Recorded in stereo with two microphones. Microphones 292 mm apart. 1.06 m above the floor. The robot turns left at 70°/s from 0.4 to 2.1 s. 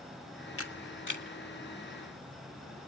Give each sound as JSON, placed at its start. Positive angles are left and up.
{"t": 0.6, "sound": "a camera shutter", "side_deg": 45, "distance_m": 1.7}